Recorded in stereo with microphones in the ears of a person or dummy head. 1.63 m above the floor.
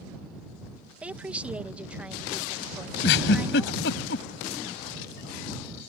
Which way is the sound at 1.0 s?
5° right (ahead or behind).